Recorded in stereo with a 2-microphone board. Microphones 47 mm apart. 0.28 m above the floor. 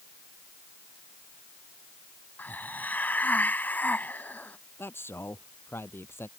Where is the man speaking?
55° left (ahead or behind).